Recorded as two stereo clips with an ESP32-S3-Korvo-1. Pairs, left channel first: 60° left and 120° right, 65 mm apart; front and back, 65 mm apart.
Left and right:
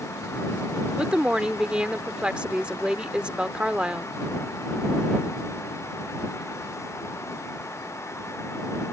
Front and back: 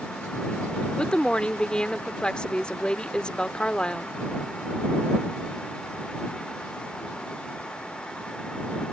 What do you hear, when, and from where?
1.0 s a woman speaking: 60° right